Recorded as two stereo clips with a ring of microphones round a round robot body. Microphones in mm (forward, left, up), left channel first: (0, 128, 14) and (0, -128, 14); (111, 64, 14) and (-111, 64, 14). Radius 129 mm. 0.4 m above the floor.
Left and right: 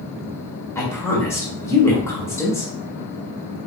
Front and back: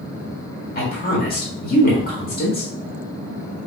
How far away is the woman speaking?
About 1.4 m.